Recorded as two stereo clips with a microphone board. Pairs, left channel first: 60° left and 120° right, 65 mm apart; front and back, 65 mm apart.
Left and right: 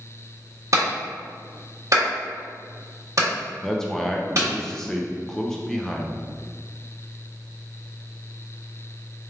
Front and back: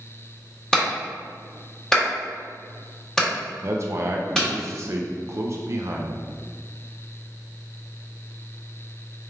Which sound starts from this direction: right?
A clap, at 0.7 s.